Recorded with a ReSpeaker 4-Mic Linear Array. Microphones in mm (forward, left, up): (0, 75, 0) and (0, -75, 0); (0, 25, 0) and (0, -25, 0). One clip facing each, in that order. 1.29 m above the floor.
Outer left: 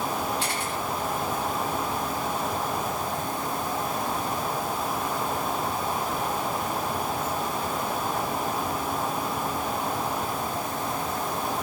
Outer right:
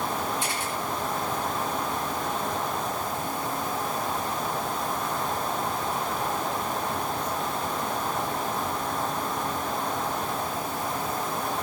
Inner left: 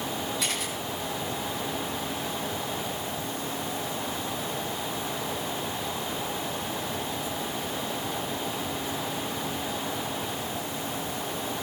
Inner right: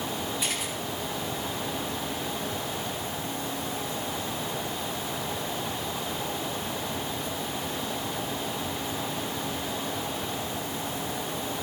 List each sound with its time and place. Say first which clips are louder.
0.4 s a camera shutter: outer left 1 dB, inner left 1 dB; 90° left, 7.5 m